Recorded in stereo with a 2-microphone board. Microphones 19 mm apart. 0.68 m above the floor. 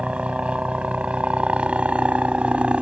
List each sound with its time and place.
0.0 s a helicopter: 70° right (ahead or behind)